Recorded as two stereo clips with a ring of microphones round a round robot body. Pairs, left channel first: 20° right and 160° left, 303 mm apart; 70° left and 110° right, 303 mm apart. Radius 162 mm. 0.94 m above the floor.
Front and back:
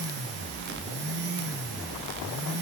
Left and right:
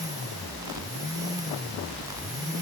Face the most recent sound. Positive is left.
No sound to turn to.